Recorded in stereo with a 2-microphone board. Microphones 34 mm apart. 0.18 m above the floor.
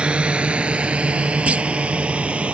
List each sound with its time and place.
0.0 s a drone: 35° right (ahead or behind); by 2.5 s 40° right (ahead or behind)
1.5 s a clunk: 40° right (ahead or behind)